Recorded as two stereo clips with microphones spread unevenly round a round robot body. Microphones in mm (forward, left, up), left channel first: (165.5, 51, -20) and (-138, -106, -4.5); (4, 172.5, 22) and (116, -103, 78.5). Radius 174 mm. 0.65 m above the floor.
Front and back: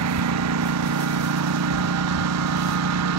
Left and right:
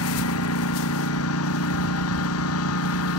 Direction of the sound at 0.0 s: 160° left.